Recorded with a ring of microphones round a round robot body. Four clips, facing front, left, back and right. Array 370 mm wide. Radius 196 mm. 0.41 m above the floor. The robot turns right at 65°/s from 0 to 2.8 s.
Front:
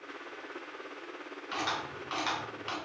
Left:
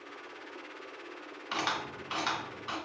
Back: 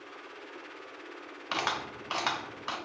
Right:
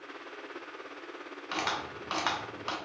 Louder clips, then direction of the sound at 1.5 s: Even, back 2 dB; straight behind.